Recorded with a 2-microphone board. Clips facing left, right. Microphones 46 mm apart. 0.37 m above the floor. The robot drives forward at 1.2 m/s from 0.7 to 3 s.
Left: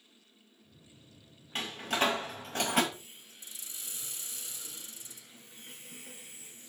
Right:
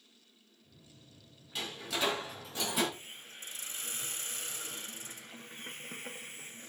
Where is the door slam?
45° left (ahead or behind), 2.5 m; by 2.8 s 65° left (ahead or behind), 2.0 m.